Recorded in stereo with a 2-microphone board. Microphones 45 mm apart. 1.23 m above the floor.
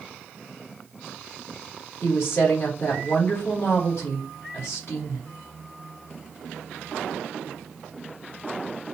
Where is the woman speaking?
60° left (ahead or behind), 2.5 m.